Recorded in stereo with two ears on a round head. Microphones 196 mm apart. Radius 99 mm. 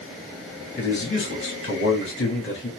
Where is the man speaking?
55° left (ahead or behind), 3 m.